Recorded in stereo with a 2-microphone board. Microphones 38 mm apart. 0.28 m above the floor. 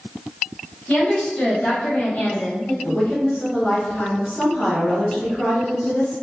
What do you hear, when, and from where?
0.9 s a woman speaking: 35° left (ahead or behind), 1.8 m; by 2.7 s 40° left (ahead or behind), 1.3 m
2.8 s a woman speaking: 30° left (ahead or behind), 1.1 m